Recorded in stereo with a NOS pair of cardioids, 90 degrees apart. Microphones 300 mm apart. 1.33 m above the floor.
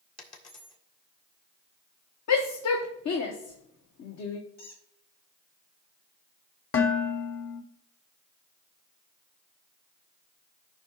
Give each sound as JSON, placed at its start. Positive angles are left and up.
{"t": 0.2, "sound": "a dropped coin", "azimuth_deg": 60, "distance_m": 2.0}
{"t": 2.3, "sound": "a shout", "azimuth_deg": 60, "distance_m": 1.1}
{"t": 4.6, "sound": "a squeak", "azimuth_deg": 65, "distance_m": 3.5}
{"t": 6.7, "sound": "dishes clattering", "azimuth_deg": 50, "distance_m": 1.8}